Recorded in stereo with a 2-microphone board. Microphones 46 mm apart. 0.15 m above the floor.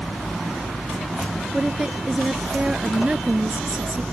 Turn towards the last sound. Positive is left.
turn(degrees=-25)  # may be behind; listen again after turning